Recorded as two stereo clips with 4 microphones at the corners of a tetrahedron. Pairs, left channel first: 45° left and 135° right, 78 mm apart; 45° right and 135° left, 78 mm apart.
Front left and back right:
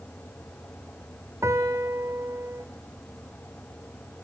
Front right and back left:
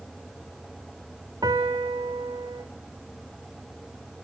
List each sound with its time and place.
1.4 s a piano: 170° left, 3 m